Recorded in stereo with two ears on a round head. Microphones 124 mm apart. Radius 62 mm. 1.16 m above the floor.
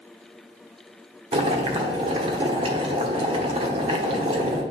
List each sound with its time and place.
1.3 s boiling: 40° right (ahead or behind), 1.2 m